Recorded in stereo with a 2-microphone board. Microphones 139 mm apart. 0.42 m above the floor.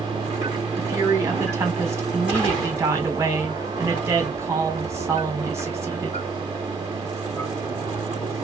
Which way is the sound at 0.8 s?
20° right (ahead or behind).